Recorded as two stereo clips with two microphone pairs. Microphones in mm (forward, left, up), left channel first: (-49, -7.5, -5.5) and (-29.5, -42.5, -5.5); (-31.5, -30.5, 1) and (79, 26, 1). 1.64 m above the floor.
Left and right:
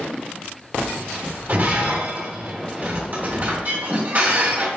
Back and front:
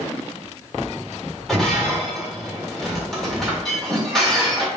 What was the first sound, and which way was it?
Breaking glass, 65° right.